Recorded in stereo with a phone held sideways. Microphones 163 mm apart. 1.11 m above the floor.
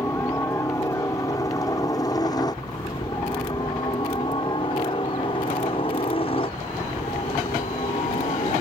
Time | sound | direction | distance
0.0 | a helicopter | 15° left (ahead or behind) | ?